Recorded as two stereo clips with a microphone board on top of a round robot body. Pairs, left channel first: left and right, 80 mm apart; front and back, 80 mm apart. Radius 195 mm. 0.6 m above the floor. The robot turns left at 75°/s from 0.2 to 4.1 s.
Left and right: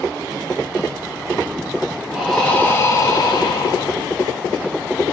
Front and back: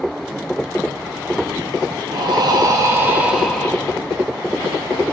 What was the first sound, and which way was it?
Breathing, 165° right.